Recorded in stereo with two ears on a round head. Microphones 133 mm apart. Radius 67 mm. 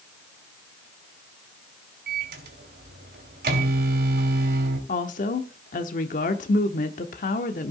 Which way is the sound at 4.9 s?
55° left (ahead or behind).